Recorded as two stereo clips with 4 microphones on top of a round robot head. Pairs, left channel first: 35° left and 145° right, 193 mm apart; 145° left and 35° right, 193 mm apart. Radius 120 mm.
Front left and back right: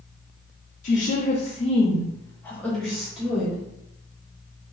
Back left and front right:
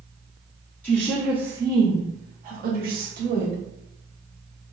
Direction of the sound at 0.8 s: 65° left.